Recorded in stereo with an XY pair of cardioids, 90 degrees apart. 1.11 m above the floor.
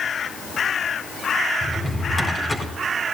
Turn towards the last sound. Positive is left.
turn(degrees=25)